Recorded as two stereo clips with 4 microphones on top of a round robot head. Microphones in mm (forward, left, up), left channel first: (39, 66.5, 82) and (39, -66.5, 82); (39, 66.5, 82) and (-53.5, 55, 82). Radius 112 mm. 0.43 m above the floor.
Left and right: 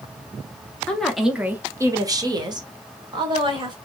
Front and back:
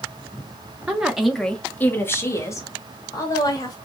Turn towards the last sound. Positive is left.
turn(degrees=-40)